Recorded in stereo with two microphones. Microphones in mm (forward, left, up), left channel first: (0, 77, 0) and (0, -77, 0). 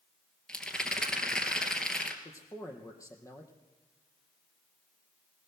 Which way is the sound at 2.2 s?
20° left (ahead or behind).